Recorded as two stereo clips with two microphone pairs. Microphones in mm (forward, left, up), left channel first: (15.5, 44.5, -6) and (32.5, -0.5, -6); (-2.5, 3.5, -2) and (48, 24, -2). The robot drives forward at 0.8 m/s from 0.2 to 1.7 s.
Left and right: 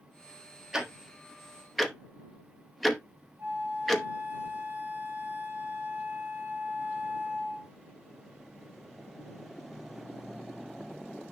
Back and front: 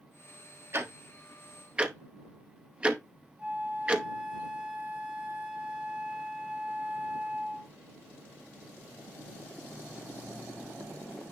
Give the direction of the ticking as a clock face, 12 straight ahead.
12 o'clock.